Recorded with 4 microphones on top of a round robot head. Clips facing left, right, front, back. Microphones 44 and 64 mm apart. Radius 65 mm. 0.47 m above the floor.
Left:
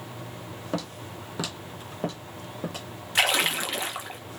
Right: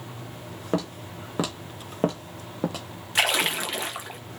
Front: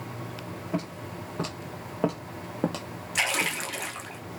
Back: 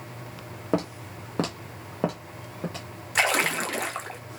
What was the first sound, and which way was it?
Footsteps, 155° right.